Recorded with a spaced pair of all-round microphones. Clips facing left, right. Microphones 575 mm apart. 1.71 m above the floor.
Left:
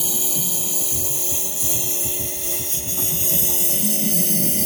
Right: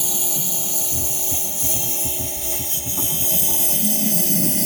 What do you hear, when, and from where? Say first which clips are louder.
0.0 s a lawn mower: left 1 dB; 10° right (ahead or behind); by 4.7 s 20° right (ahead or behind)